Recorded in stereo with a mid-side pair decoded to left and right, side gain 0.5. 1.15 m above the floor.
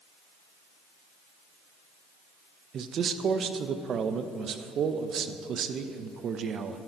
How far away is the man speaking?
About 0.7 m.